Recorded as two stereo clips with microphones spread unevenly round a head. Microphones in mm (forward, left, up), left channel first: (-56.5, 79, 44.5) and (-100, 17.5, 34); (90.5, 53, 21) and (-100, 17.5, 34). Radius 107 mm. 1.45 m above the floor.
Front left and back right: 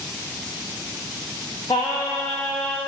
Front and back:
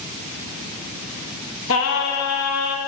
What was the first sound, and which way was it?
Singing, 5° right.